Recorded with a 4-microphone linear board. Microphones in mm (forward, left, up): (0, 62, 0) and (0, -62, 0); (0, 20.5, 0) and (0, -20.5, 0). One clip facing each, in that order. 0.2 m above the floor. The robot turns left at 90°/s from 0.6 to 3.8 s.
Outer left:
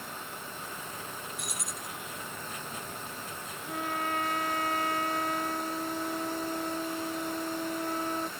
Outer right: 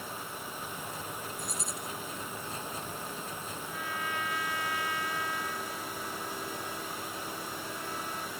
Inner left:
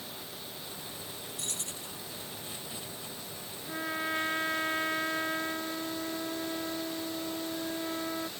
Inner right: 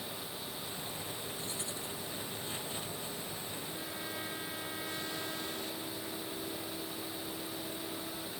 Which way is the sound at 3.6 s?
60° left (ahead or behind).